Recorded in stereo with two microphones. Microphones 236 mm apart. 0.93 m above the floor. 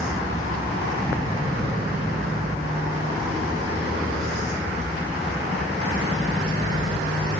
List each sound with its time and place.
1.0 s a sliding door: 5° left (ahead or behind), 3.5 m